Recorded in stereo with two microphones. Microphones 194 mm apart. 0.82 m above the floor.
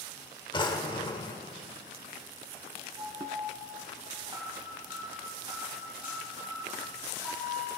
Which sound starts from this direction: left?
A drawer, at 0.5 s.